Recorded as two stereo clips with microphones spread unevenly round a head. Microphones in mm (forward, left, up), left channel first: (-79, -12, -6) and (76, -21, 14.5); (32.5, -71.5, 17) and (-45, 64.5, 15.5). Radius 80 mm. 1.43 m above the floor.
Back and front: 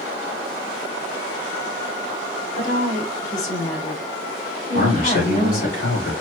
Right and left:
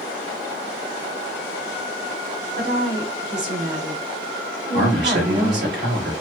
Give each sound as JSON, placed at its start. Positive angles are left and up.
{"t": 2.6, "sound": "a woman speaking", "azimuth_deg": 140, "distance_m": 2.5}
{"t": 4.7, "sound": "a man speaking", "azimuth_deg": 135, "distance_m": 2.5}